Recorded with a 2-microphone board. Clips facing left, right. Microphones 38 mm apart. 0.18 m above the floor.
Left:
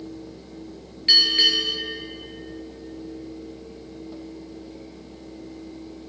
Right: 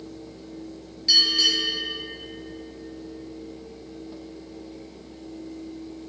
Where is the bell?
45° left (ahead or behind), 2.5 m.